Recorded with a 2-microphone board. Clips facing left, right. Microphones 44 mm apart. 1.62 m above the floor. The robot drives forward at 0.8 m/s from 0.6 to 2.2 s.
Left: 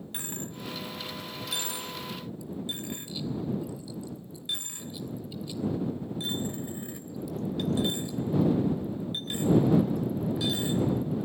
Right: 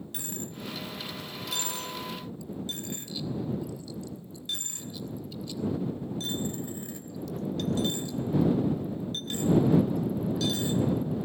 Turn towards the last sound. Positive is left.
turn(degrees=15)  # may be behind; listen again after turning